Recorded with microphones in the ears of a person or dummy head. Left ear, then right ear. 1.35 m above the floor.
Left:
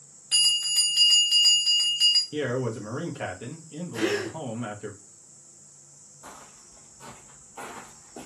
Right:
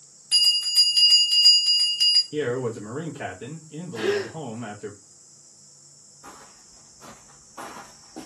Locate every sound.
0.3 s a bell: 5° right (ahead or behind), 0.8 m
2.3 s a man speaking: centre (ahead or behind), 0.7 m
3.9 s a gasp: 50° left (ahead or behind), 1.1 m
6.2 s footsteps: 35° left (ahead or behind), 1.7 m; by 8.3 s 5° right (ahead or behind), 1.3 m